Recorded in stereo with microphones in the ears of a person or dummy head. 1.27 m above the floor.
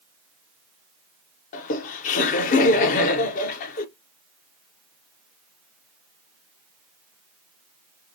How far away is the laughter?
About 0.7 m.